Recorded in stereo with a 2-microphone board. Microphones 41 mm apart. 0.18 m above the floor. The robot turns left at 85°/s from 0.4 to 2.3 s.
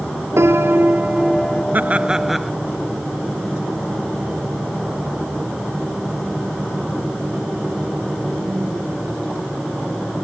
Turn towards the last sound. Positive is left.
turn(degrees=-175)